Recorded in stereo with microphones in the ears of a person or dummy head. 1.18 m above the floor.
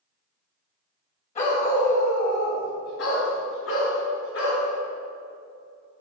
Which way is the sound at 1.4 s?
40° left (ahead or behind).